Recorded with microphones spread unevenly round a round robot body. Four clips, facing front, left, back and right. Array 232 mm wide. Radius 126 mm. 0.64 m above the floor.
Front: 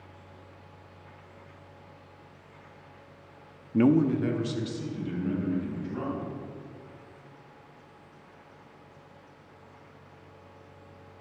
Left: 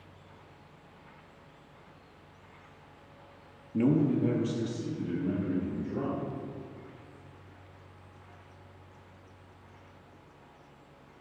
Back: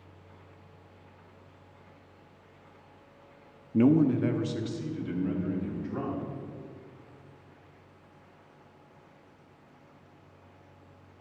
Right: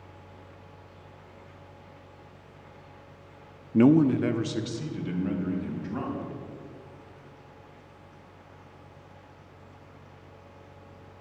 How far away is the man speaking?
About 0.5 m.